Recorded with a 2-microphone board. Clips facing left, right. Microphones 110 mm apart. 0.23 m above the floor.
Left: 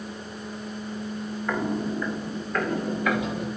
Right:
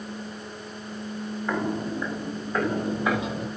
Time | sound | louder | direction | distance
1.5 | footsteps | left 1 dB | 10° right (ahead or behind) | 5.5 m